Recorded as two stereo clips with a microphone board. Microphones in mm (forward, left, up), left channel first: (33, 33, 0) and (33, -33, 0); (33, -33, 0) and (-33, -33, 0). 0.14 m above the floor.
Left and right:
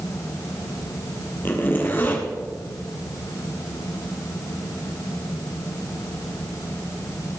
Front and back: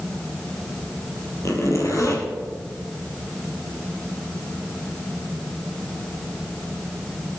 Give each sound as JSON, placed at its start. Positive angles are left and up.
{"t": 1.4, "sound": "a zipper", "azimuth_deg": 30, "distance_m": 3.0}